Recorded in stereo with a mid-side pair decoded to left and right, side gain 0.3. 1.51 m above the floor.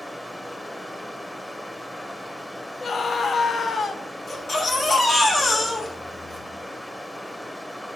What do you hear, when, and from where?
0.0 s running water: 10° left, 1.0 m
2.8 s a scream: 55° left, 0.6 m
4.3 s a baby crying: 65° left, 1.6 m